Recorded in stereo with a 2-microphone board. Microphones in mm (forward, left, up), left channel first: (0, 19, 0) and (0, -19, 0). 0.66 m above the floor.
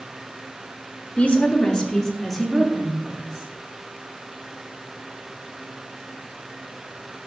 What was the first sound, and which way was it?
A woman speaking, 40° left (ahead or behind).